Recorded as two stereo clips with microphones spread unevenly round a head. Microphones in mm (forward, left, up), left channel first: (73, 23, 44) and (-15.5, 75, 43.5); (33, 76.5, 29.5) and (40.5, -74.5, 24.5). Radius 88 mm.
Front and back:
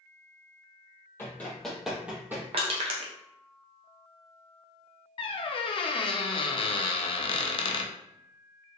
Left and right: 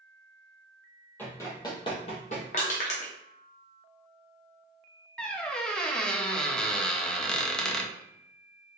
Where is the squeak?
10° left, 0.5 m.